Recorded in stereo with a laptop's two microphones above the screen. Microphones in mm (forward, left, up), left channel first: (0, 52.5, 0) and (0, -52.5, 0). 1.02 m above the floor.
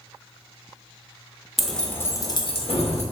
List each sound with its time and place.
1.6 s keys jangling: centre (ahead or behind), 0.7 m; by 3.0 s 80° left, 0.6 m